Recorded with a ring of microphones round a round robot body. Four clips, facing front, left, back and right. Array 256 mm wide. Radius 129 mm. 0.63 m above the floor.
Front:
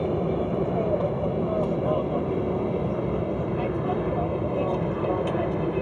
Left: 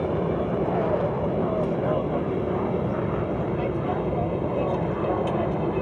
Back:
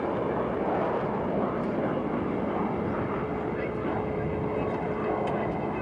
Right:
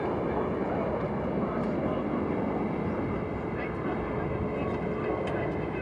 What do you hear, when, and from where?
0.0 s an aircraft: 45° left